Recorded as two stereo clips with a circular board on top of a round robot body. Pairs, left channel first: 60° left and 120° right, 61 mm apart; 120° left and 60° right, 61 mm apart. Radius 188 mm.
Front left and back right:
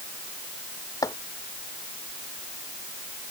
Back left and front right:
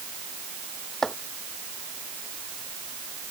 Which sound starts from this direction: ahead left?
Chopping, at 1.0 s.